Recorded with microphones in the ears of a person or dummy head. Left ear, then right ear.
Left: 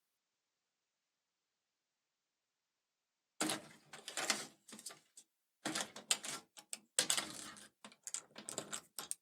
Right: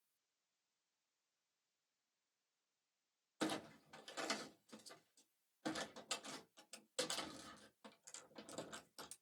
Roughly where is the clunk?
Left.